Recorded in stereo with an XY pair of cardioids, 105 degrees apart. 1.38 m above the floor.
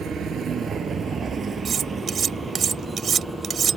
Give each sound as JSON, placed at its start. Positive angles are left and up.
{"t": 0.0, "sound": "a vehicle", "azimuth_deg": -65}
{"t": 1.6, "sound": "cutlery clinking", "azimuth_deg": -55}